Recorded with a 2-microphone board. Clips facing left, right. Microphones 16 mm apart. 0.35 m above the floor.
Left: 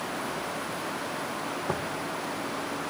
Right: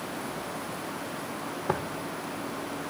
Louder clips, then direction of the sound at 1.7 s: Right 3 dB; 15° right (ahead or behind).